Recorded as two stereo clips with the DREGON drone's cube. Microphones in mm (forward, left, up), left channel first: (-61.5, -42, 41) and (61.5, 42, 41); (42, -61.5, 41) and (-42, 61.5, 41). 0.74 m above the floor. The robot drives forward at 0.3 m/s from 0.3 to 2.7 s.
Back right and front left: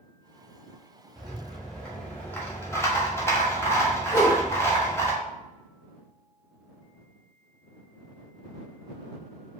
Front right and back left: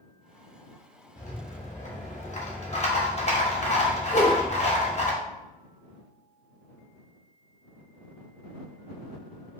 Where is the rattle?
55° right, 1.3 m; by 5.1 s 80° right, 1.1 m.